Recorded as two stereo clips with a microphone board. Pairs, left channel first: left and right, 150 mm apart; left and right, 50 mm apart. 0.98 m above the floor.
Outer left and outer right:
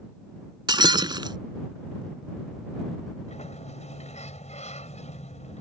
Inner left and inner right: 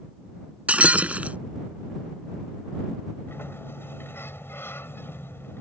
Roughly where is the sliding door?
Left.